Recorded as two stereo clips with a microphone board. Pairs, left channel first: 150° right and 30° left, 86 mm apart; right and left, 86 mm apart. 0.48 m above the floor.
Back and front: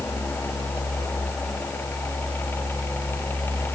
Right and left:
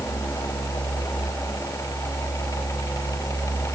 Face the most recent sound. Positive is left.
No sound to turn to.